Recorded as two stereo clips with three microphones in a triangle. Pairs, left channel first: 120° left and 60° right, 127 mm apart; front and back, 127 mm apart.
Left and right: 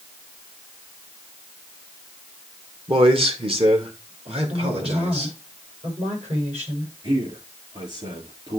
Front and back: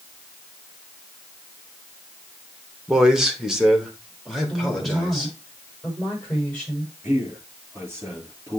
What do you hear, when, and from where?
2.9 s a man speaking: 95° right, 1.5 m; by 5.3 s 90° right, 3.5 m
4.5 s a woman speaking: 85° right, 6 m
7.0 s a man speaking: 105° right, 4.5 m